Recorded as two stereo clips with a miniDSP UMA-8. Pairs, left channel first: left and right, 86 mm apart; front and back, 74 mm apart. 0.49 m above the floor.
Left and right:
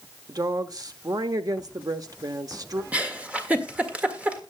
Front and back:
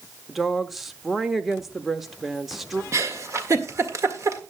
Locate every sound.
0.3 s a woman speaking: 95° right, 1.0 m
2.9 s a giggle: 160° right, 1.7 m